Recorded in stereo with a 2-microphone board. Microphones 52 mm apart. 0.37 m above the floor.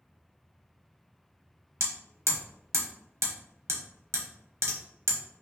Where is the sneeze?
No sneeze in this recording.